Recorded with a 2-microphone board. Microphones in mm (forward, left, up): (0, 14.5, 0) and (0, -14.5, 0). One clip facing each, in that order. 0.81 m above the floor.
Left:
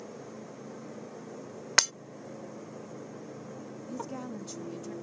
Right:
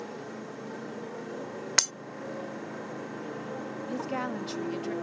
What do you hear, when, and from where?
0.0 s a motorcycle: 55° right (ahead or behind); by 5.0 s 90° right
1.8 s breaking glass: 10° left (ahead or behind)
3.9 s a woman speaking: 50° right (ahead or behind)